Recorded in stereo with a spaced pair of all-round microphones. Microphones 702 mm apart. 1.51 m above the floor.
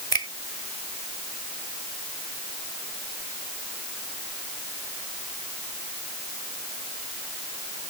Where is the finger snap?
50° right (ahead or behind).